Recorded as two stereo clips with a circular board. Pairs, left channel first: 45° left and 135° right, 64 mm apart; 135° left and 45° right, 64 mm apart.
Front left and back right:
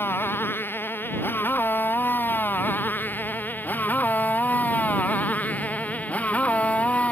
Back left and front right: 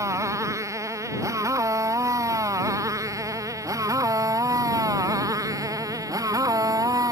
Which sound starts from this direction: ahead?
A motorcycle, at 0.0 s.